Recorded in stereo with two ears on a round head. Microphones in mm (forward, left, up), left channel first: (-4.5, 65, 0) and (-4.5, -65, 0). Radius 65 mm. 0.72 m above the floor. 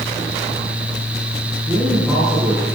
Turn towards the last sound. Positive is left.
turn(degrees=0)  # may be behind; listen again after turning